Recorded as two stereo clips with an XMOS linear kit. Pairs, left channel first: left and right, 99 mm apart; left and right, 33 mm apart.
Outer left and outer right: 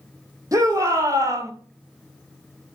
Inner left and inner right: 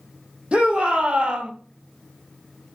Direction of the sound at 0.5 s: 35° right (ahead or behind).